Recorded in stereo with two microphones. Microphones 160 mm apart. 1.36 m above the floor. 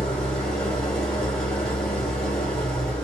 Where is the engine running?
5° left (ahead or behind), 1.1 m.